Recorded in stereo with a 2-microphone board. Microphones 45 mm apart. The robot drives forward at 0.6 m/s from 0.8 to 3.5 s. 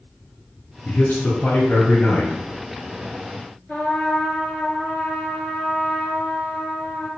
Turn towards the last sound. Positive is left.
turn(degrees=20)  # may be behind; listen again after turning